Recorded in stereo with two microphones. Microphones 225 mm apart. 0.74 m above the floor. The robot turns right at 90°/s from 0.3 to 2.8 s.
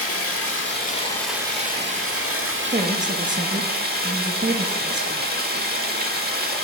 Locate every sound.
0.0 s running water: 90° left, 1.1 m; by 6.6 s 45° right, 1.1 m
2.7 s a woman speaking: 40° right (ahead or behind), 0.6 m; by 5.3 s 35° right (ahead or behind), 0.6 m